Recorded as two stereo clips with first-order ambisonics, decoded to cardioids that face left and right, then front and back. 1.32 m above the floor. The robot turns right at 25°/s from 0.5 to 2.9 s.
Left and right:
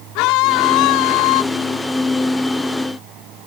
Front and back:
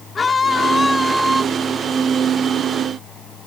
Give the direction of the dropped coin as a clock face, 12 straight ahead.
No dropped coin in this recording.